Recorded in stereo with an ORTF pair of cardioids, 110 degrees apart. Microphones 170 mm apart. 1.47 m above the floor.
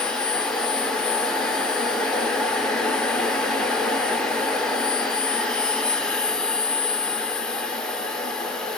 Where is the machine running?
5° left, 0.7 m.